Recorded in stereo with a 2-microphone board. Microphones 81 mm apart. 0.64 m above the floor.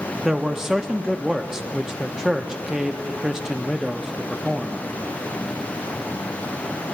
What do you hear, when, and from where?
0.2 s a man speaking: 5° right (ahead or behind), 0.5 m